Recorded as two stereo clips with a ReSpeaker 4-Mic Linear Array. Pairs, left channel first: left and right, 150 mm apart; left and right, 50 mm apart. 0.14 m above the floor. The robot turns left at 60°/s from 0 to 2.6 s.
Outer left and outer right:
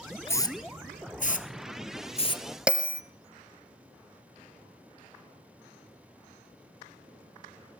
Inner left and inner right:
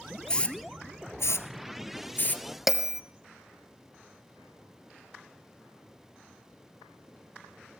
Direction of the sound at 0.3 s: 15° left (ahead or behind).